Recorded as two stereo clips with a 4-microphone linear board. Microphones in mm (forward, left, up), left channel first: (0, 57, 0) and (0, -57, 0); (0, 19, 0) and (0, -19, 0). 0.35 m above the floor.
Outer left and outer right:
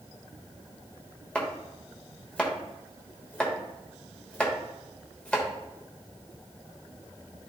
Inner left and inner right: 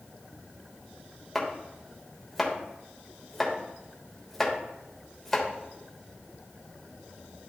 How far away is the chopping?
About 1.3 m.